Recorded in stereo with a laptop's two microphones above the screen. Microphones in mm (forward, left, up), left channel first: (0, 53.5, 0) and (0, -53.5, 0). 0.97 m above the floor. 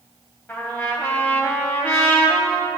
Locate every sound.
0.5 s a trumpet: 15° left (ahead or behind), 1.7 m